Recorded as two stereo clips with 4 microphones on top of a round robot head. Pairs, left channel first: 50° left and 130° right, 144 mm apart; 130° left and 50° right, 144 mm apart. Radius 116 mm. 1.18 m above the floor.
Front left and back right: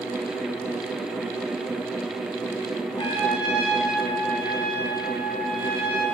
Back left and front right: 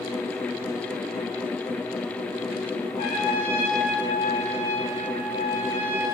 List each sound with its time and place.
3.0 s a trumpet: 105° left, 9.5 m